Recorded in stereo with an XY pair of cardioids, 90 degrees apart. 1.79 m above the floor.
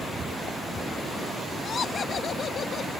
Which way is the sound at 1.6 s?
60° left.